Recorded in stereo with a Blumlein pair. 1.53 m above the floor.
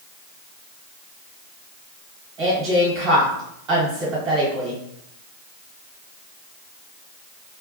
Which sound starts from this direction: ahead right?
A woman speaking, at 2.4 s.